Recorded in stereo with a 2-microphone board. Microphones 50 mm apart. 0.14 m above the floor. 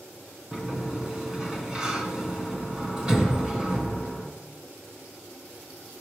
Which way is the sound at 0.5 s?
15° right (ahead or behind).